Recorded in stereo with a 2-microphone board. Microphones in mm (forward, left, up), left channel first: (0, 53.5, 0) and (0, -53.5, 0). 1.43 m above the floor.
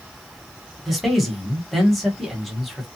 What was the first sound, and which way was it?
A man speaking, centre (ahead or behind).